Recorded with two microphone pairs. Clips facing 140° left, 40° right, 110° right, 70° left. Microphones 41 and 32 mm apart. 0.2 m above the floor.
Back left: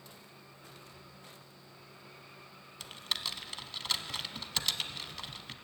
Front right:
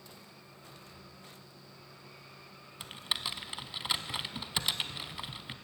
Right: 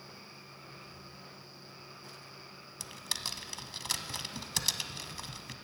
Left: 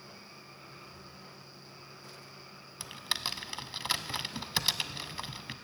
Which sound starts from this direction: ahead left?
Typing on a keyboard, at 2.8 s.